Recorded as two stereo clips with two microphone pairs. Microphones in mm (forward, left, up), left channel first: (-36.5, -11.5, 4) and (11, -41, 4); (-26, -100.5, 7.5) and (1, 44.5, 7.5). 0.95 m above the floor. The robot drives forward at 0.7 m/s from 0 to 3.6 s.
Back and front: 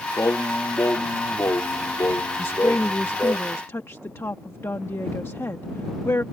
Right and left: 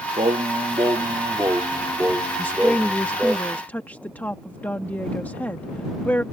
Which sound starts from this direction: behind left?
Singing, at 0.2 s.